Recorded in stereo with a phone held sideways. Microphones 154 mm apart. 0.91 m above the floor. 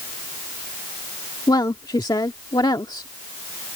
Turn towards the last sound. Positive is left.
turn(degrees=25)  # may be behind; listen again after turning